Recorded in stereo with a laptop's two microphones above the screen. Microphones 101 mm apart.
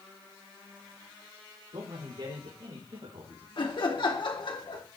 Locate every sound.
1.7 s a man speaking: 75° right (ahead or behind), 3.5 m
3.6 s laughter: 60° left (ahead or behind), 2.5 m